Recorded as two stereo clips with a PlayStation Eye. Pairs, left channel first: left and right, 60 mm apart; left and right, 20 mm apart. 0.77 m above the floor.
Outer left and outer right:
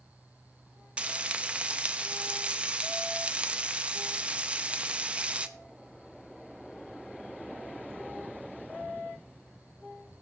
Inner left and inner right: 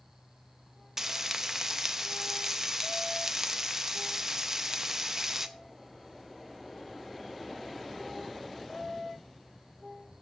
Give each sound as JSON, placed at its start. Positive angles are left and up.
{"t": 1.0, "sound": "frying", "side_deg": -20, "distance_m": 0.7}